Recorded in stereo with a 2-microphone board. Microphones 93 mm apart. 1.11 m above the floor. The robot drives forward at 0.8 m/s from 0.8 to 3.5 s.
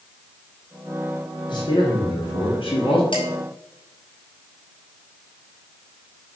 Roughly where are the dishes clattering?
Left.